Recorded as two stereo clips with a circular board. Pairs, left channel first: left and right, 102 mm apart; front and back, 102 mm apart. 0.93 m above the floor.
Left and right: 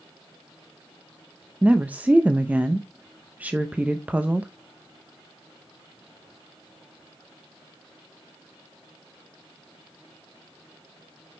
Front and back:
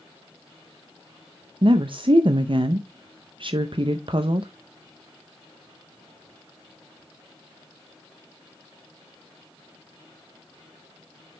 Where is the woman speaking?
165° right, 0.5 m.